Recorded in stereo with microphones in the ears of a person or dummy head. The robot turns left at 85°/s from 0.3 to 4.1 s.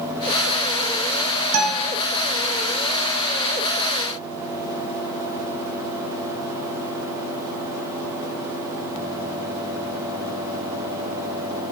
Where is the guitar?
85° right, 1.1 m; by 2.0 s 120° right, 1.1 m.